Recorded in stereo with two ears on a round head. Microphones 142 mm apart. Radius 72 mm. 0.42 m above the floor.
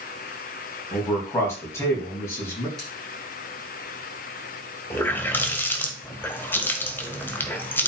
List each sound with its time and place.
0.9 s a man speaking: 15° left (ahead or behind), 4.5 m
2.8 s scissors: centre (ahead or behind), 6.5 m
4.9 s a running tap: 15° left (ahead or behind), 1.3 m